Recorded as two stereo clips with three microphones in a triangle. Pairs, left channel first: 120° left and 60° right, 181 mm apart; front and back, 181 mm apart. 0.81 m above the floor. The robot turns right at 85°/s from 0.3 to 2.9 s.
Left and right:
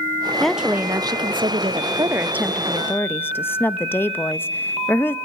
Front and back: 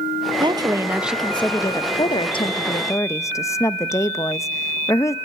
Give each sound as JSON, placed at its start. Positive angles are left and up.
{"t": 0.4, "sound": "a woman speaking", "azimuth_deg": -155, "distance_m": 0.6}